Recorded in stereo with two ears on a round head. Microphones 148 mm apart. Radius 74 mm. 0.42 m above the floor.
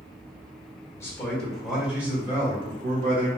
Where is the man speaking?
15° left (ahead or behind), 1.2 m; by 3.3 s 35° right (ahead or behind), 1.5 m.